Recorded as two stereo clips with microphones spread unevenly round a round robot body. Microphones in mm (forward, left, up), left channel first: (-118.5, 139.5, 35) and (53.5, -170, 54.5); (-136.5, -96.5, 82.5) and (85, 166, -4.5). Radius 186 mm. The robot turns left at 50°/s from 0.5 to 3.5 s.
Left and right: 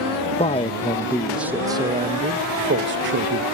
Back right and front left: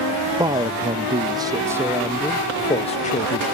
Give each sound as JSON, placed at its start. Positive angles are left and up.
{"t": 0.4, "sound": "a man speaking", "azimuth_deg": 75}